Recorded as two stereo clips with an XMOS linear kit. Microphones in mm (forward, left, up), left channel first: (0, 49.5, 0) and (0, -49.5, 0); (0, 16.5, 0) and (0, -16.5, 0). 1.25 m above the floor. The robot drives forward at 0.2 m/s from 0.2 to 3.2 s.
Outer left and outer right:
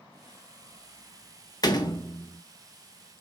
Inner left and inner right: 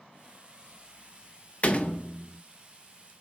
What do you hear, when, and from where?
1.6 s a door slam: 40° left (ahead or behind), 0.6 m